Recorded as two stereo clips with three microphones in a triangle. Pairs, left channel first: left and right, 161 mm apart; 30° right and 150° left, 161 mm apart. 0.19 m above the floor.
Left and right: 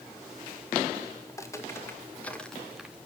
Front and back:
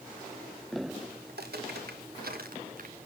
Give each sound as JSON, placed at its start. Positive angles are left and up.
{"t": 1.3, "sound": "footsteps", "azimuth_deg": 160, "distance_m": 3.0}